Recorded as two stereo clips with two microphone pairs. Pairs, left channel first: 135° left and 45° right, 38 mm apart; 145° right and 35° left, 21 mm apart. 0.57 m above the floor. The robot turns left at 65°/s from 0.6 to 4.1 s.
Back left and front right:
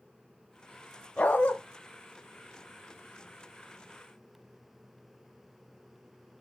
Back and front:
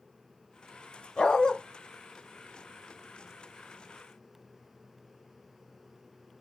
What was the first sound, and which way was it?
A dog barking, 170° right.